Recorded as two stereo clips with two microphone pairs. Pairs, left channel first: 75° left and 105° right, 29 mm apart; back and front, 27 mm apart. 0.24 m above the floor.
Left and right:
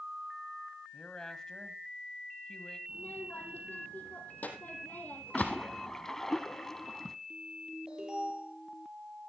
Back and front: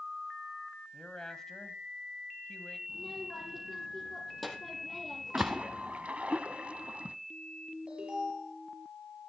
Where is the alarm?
50° right, 7.5 m.